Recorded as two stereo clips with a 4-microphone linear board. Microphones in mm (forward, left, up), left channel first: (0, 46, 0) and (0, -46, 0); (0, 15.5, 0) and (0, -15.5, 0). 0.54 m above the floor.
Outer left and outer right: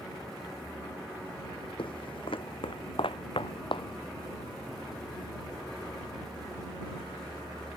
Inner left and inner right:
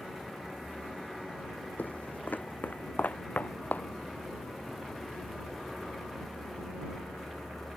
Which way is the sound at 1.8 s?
70° left (ahead or behind).